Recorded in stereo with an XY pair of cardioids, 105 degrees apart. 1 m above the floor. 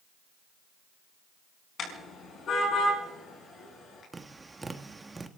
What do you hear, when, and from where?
1.8 s a car horn: 55° left, 5.5 m
4.1 s tapping: 20° right, 1.5 m